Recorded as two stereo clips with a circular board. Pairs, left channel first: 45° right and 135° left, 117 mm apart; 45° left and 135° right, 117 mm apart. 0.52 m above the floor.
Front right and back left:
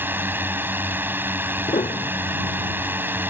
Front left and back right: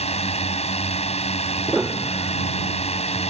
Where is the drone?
65° left.